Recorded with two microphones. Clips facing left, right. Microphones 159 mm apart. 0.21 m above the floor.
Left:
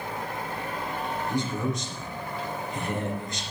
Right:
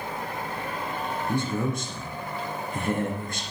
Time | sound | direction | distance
1.3 | a man speaking | 55° right (ahead or behind) | 3 m